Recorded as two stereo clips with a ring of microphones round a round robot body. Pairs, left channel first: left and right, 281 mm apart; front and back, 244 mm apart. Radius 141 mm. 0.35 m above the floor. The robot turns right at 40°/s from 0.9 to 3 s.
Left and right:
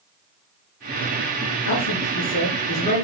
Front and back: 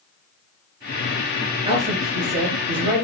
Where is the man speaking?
110° left, 4.5 m; by 3.0 s 165° left, 4.5 m.